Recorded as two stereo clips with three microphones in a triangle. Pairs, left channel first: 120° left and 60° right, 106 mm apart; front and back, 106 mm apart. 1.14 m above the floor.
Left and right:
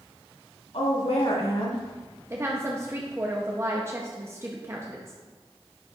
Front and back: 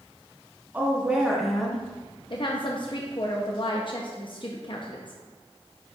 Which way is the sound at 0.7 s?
110° left.